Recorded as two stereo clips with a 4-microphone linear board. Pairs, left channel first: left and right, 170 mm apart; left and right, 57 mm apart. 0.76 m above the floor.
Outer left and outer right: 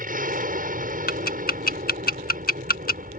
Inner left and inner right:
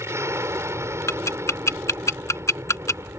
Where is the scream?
No scream in this recording.